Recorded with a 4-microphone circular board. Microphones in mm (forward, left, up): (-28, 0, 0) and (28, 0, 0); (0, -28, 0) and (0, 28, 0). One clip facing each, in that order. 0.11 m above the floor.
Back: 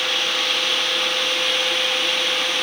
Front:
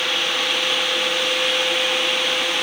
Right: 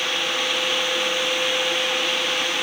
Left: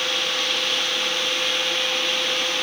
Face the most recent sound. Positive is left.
No sound to turn to.